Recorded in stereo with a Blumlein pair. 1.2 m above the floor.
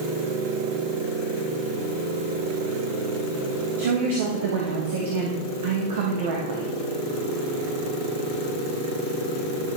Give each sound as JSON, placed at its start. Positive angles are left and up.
{"t": 3.8, "sound": "a woman speaking", "azimuth_deg": -55, "distance_m": 1.4}